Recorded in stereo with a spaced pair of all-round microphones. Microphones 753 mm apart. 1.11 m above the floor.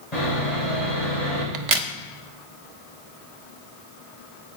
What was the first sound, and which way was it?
Sawing, 60° left (ahead or behind).